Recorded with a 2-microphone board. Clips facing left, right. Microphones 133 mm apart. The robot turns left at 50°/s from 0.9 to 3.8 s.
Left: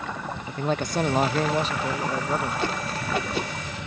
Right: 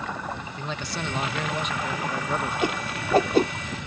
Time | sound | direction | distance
0.5 | a man speaking | 85° left | ?
2.6 | a whoosh | 15° right (ahead or behind) | ?